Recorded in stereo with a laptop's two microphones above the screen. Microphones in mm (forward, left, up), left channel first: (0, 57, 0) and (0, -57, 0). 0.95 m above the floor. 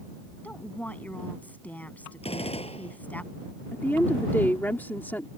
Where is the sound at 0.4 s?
15° left (ahead or behind).